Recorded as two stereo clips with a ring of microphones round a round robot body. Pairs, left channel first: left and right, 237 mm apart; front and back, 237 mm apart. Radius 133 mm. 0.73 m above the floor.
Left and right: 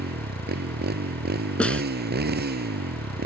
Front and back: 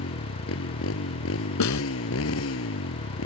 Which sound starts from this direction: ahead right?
A motorcycle, at 0.0 s.